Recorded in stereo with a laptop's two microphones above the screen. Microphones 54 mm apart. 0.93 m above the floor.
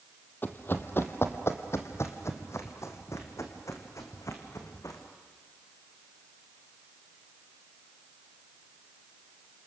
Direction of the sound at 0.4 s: 40° left (ahead or behind).